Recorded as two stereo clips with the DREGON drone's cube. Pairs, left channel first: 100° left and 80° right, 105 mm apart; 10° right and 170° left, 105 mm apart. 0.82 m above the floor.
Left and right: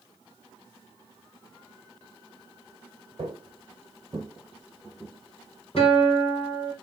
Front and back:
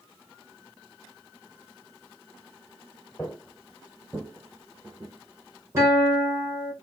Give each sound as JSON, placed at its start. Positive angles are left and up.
{"t": 3.2, "sound": "footsteps", "azimuth_deg": -90, "distance_m": 1.3}
{"t": 5.8, "sound": "a guitar", "azimuth_deg": 110, "distance_m": 2.5}